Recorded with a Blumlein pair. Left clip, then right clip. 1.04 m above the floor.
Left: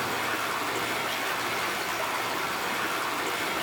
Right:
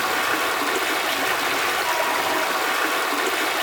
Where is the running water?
65° right, 1.6 m.